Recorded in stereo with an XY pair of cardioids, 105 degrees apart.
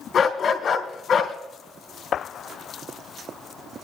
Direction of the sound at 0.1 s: 50° left.